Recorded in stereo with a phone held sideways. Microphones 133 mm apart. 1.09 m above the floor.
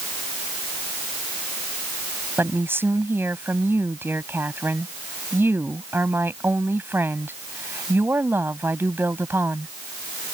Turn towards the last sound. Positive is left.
turn(degrees=-15)  # may be behind; listen again after turning